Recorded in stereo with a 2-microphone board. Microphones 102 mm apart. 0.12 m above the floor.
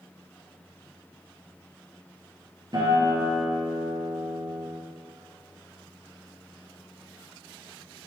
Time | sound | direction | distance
2.7 | a guitar | 45° right (ahead or behind) | 2.5 m